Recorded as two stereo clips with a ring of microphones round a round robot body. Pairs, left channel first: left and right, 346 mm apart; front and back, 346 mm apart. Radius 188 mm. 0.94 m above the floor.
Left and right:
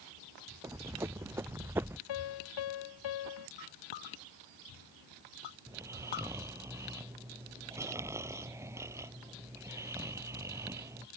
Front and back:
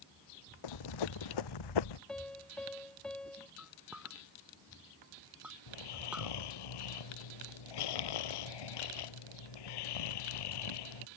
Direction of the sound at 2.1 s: 85° left.